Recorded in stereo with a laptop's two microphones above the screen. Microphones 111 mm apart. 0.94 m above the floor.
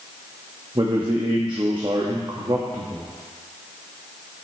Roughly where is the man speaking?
Right.